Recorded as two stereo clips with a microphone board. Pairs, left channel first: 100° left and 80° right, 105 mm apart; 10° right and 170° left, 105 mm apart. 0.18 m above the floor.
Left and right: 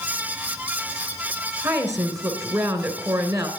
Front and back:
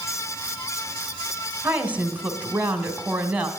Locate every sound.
1.6 s a woman speaking: 120° right, 1.7 m